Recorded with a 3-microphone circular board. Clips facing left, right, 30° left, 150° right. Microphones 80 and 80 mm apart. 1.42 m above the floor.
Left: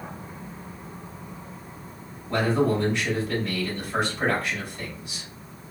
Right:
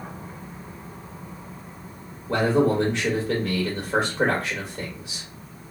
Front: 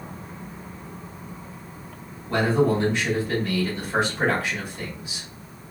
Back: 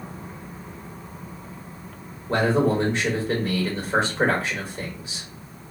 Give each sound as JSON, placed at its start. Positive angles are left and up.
{"t": 2.3, "sound": "a man speaking", "azimuth_deg": -90, "distance_m": 2.0}